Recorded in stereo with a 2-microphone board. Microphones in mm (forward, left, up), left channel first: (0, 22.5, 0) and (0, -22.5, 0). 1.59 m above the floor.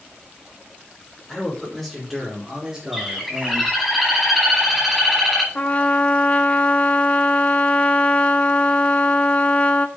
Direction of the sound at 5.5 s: 35° left (ahead or behind).